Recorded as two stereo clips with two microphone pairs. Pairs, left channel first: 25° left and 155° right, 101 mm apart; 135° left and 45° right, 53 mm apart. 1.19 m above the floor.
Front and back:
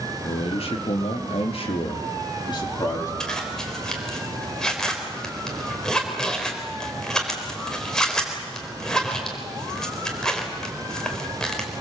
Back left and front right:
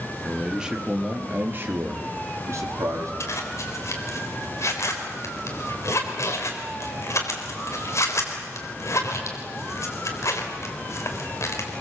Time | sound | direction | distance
0.2 | a man speaking | 40° left | 3 m
3.2 | a zipper | 110° left | 3.5 m